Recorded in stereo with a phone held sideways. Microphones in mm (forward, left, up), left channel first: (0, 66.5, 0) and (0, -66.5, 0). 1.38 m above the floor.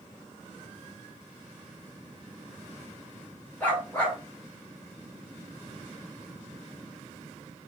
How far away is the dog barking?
About 2.0 m.